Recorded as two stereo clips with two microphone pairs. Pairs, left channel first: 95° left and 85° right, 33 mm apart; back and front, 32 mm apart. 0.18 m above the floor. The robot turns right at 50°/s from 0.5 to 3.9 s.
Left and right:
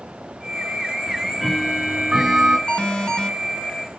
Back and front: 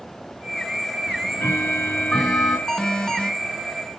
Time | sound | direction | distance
1.1 | ticking | 170° left | 3 m
2.7 | an alarm | 125° left | 2.5 m